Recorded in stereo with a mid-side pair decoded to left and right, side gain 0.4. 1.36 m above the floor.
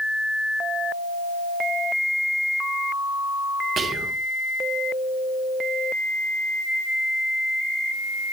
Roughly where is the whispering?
Ahead right.